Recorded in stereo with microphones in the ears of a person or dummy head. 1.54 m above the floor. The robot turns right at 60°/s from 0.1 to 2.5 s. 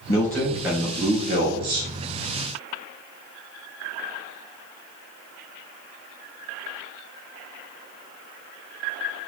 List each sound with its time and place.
0.1 s a man speaking: 165° left, 2 m; by 1.9 s 90° right, 2 m